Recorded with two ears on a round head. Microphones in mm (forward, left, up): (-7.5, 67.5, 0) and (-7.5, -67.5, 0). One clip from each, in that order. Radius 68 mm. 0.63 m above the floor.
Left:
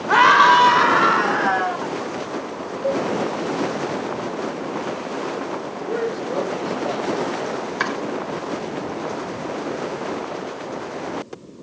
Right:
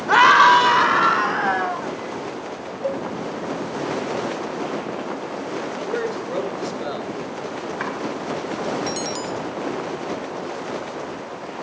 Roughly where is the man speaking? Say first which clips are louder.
Left 2 dB; right.